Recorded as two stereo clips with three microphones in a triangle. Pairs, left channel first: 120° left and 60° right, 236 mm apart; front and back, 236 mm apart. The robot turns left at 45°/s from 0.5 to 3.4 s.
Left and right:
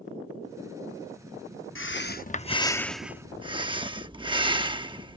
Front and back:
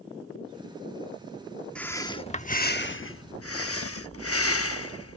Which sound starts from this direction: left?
Breathing, at 1.8 s.